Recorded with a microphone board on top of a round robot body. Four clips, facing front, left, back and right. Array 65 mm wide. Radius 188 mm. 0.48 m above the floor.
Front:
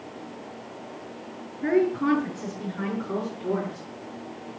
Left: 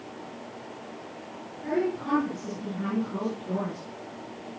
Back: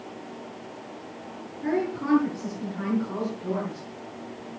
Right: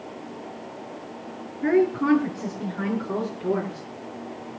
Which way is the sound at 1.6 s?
65° right.